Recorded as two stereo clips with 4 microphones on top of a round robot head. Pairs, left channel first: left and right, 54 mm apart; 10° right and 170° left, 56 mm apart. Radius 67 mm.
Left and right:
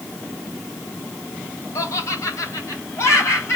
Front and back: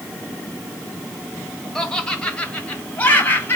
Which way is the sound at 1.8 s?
70° left.